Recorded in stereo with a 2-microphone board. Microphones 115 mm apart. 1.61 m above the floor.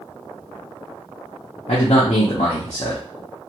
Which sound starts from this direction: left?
A man speaking, at 1.7 s.